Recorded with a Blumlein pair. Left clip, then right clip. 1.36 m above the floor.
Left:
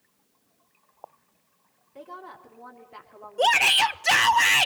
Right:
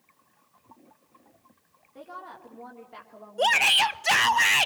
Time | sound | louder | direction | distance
1.9 | a woman speaking | even | straight ahead | 3.5 m
3.4 | a shout | left 1 dB | 5° left | 0.8 m